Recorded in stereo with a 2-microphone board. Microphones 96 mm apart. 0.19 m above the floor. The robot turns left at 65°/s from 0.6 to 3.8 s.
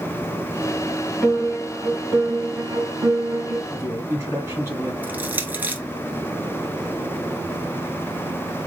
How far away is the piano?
About 1.4 m.